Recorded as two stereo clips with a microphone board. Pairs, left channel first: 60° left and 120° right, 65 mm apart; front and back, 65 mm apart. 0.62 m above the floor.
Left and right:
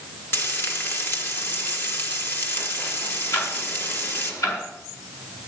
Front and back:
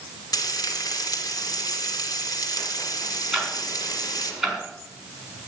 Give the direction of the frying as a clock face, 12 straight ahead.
12 o'clock.